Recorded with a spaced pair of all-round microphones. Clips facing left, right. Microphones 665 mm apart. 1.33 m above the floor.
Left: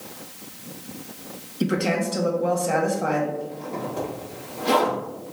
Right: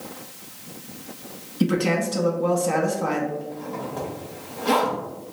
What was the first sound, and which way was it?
A woman speaking, 30° right (ahead or behind).